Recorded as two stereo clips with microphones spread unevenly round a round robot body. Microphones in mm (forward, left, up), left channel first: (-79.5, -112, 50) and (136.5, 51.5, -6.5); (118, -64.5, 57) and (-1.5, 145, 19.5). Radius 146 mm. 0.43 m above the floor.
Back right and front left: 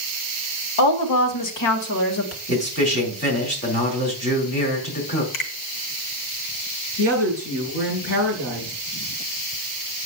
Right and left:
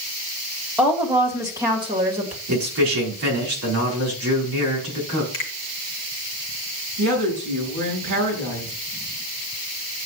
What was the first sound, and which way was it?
A woman speaking, 155° right.